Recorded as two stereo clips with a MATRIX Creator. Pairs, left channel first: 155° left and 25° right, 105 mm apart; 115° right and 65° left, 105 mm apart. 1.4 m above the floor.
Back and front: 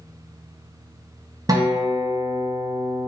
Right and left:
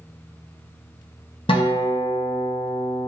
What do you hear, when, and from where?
1.5 s a guitar: 75° right, 0.9 m